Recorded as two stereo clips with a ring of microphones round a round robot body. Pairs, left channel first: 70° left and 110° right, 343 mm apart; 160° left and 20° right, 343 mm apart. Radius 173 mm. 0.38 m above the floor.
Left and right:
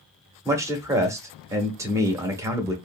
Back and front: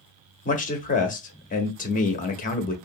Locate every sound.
0.5 s a man speaking: straight behind, 0.8 m